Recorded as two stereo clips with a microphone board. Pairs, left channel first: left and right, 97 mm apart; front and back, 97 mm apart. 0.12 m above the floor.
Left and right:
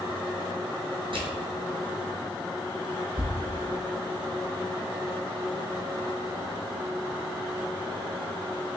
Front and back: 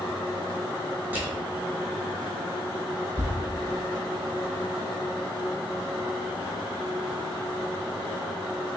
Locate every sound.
1.1 s crushing: 110° right, 1.1 m
3.2 s a thud: 150° right, 0.6 m